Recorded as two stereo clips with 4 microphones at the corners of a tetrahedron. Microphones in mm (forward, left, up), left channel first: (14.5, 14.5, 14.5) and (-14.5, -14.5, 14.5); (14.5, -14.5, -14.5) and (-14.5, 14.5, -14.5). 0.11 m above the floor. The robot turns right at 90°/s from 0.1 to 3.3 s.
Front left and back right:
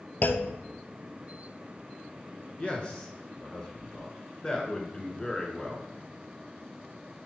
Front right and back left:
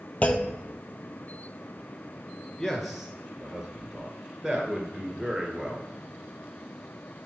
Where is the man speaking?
25° left, 1.4 m; by 5.9 s 90° left, 1.4 m.